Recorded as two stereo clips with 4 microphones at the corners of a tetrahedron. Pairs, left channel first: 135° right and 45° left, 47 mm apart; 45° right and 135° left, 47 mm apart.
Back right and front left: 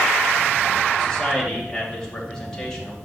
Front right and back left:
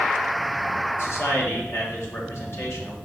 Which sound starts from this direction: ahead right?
A man speaking, at 1.0 s.